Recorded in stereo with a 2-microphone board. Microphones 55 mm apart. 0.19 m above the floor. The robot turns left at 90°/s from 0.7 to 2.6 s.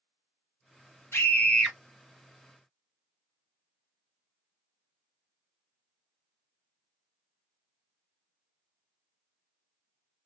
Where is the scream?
60° left, 1.6 m; by 1.8 s straight ahead, 1.6 m.